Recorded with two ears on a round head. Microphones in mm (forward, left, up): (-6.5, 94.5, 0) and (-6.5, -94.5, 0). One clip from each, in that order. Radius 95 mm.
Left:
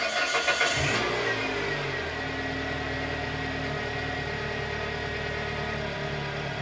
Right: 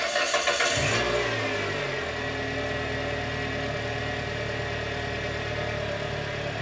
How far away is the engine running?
About 1.1 m.